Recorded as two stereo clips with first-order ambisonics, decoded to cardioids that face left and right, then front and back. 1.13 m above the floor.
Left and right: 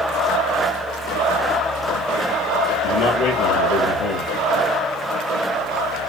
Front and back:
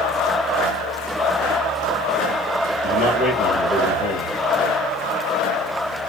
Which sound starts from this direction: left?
A man speaking, at 2.8 s.